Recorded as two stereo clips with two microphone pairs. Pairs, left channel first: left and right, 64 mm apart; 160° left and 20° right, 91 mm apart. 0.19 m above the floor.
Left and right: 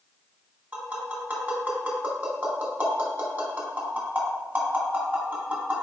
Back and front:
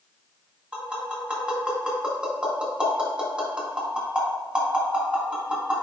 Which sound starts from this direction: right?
Tapping, at 0.7 s.